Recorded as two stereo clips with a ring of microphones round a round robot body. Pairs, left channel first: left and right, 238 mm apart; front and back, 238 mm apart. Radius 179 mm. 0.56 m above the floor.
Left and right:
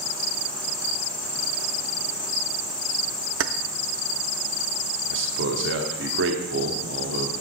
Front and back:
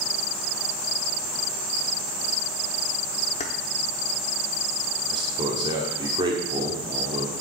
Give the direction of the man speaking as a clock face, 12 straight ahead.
4 o'clock.